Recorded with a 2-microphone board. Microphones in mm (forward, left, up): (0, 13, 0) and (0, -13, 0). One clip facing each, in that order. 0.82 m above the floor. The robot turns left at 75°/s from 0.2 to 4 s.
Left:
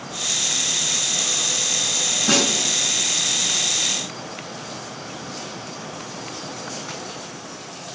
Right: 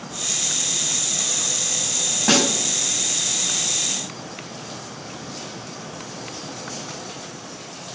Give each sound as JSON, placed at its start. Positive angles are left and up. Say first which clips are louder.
{"t": 2.3, "sound": "a snare drum", "louder": "right 2 dB", "side_deg": -55, "distance_m": 5.5}